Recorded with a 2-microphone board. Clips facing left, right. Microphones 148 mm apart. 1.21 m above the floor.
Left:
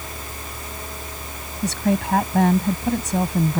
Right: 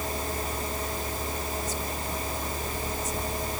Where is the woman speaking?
85° left.